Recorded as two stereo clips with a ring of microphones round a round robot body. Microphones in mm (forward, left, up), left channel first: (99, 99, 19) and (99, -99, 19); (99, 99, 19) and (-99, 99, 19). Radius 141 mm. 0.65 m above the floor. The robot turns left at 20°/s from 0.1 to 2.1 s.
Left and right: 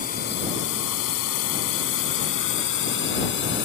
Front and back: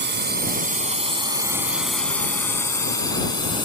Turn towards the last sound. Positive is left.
turn(degrees=65)